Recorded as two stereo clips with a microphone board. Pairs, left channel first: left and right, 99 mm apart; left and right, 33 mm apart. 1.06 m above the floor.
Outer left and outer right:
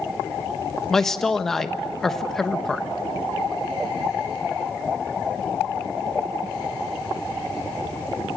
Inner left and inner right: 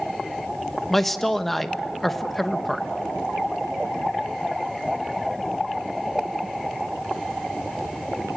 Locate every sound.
0.9 s a man speaking: 5° left (ahead or behind), 1.2 m